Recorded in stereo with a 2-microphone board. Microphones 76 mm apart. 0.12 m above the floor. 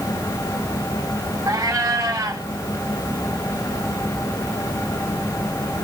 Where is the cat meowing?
40° right (ahead or behind), 3.5 m.